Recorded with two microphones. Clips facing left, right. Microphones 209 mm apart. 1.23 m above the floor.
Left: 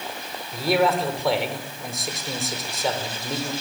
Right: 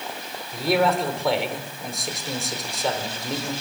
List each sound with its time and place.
0.5 s a man speaking: centre (ahead or behind), 5 m